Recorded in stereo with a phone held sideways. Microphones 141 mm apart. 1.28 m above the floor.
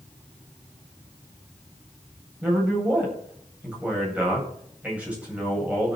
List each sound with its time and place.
2.4 s a man speaking: 10° right (ahead or behind), 9.5 m